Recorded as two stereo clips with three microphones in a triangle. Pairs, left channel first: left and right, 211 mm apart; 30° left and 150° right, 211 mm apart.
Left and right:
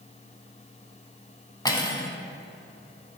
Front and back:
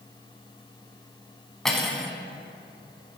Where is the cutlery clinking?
115° left, 0.6 m.